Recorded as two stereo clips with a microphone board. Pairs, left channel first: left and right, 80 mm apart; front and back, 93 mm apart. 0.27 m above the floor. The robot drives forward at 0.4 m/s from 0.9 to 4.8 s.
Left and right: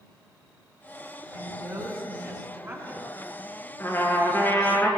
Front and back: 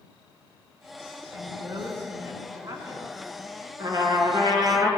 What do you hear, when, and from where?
1.3 s a woman speaking: 135° right, 2.5 m; by 3.1 s 145° right, 3 m
3.8 s a trumpet: 145° left, 2.5 m; by 4.9 s 150° left, 3 m